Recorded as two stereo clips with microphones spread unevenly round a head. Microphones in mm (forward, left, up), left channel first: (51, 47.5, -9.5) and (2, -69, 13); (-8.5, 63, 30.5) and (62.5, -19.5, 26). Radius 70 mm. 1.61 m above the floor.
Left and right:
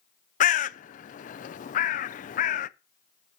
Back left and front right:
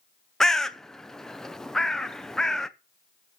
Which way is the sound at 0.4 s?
45° left.